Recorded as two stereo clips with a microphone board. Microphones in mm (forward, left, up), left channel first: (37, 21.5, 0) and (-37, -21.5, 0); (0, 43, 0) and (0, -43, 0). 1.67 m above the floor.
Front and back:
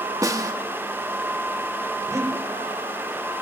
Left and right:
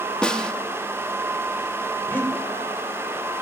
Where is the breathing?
160° left, 5.5 m.